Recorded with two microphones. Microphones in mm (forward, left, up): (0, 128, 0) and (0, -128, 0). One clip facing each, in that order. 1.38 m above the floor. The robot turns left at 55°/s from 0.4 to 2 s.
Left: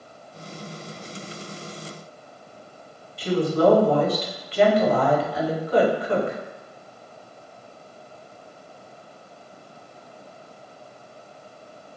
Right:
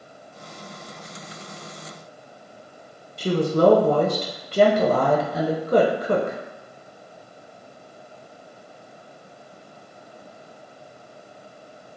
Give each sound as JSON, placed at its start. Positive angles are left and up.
{"t": 3.2, "sound": "a woman speaking", "side_deg": -45, "distance_m": 0.5}